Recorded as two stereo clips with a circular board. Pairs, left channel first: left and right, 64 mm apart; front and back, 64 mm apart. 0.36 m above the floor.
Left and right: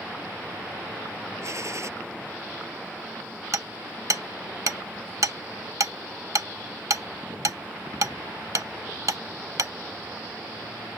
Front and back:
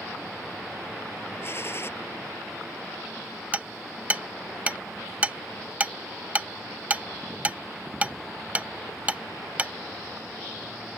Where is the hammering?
115° right.